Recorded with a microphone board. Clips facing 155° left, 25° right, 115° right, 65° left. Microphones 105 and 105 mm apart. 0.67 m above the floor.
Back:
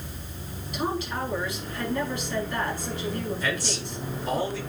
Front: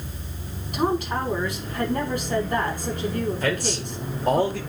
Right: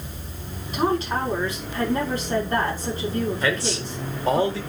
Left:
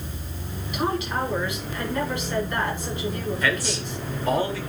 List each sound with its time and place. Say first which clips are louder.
0.7 s a woman speaking: front 5 dB, right 3 dB; 60° right, 5 m
3.4 s a man speaking: front 5 dB, right 1 dB; 50° right, 2 m